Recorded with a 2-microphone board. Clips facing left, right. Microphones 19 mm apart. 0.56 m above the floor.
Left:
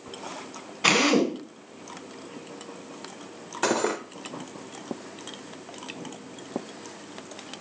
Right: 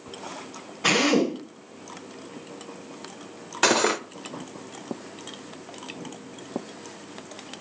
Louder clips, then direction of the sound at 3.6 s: Right 4 dB; 70° right (ahead or behind).